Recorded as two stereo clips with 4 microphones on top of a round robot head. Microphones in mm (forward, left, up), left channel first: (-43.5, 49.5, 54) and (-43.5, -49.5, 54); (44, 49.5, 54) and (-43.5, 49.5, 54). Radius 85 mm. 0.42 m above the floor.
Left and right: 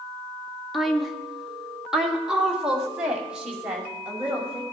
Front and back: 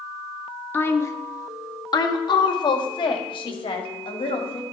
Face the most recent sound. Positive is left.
turn(degrees=-10)